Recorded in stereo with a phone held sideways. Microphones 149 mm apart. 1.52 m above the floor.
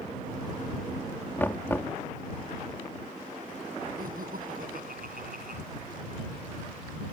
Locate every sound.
1.4 s knocking: 15° left (ahead or behind)
4.0 s laughter: 75° right (ahead or behind)